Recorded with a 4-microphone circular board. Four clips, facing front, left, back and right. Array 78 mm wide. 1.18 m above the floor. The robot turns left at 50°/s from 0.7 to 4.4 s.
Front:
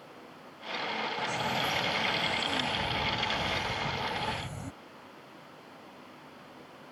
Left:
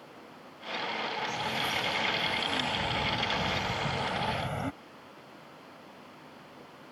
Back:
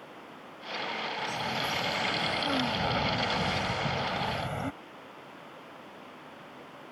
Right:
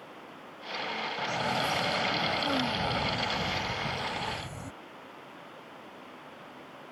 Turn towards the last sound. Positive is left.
turn(degrees=135)